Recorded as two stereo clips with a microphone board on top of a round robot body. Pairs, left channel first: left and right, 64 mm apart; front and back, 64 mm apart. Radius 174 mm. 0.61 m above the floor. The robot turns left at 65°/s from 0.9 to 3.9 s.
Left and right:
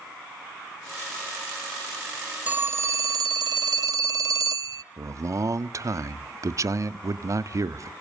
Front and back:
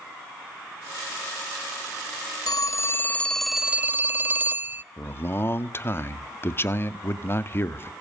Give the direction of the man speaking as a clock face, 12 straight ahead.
2 o'clock.